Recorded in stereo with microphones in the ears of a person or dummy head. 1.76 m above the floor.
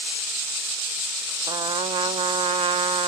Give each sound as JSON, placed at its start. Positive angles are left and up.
{"t": 1.5, "sound": "a trumpet", "side_deg": -30, "distance_m": 0.6}